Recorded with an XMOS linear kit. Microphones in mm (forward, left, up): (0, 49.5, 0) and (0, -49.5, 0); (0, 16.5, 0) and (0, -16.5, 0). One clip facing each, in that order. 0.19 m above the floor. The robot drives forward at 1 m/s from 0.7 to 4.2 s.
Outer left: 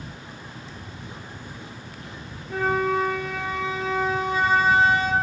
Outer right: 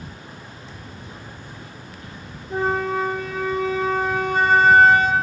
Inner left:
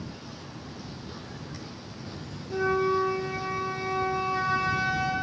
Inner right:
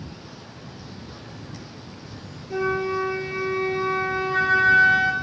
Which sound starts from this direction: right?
A flute, at 2.5 s.